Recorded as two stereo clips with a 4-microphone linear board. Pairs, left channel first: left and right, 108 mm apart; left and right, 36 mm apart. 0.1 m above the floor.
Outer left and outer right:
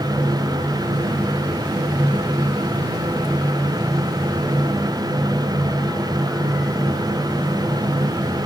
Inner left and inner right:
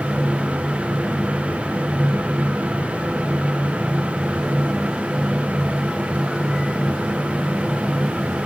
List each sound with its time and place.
Only background noise.